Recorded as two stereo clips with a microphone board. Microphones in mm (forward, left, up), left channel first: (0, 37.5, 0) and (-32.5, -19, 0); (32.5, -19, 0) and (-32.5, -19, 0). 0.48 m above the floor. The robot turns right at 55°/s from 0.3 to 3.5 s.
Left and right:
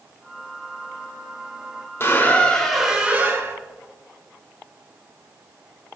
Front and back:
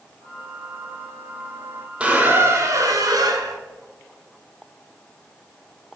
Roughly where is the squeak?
Left.